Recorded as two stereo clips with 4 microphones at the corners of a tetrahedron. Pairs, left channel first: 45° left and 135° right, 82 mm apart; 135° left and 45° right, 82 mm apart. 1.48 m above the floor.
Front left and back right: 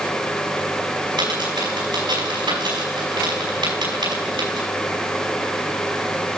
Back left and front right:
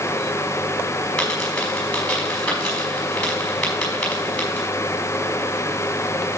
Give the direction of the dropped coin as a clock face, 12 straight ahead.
5 o'clock.